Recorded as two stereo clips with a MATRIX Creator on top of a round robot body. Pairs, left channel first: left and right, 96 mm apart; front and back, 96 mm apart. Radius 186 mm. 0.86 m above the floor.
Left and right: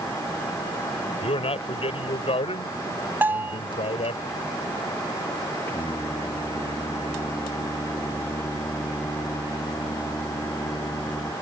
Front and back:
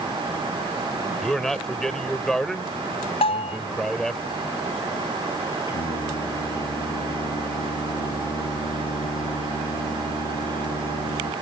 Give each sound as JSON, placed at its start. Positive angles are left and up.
{"t": 1.2, "sound": "a man speaking", "azimuth_deg": 85}
{"t": 3.2, "sound": "a bell", "azimuth_deg": -20}
{"t": 5.7, "sound": "singing", "azimuth_deg": 25}